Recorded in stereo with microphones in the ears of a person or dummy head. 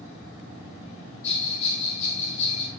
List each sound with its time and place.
1.2 s a bell: 30° left (ahead or behind), 2.5 m